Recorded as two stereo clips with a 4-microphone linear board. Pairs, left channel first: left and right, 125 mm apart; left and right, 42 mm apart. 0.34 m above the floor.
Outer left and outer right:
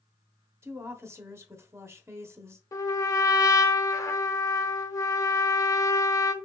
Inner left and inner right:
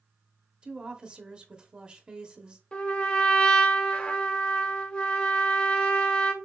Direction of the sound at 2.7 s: 25° left (ahead or behind).